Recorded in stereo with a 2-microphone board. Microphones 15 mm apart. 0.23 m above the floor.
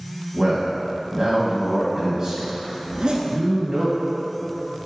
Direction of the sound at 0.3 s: 20° right (ahead or behind).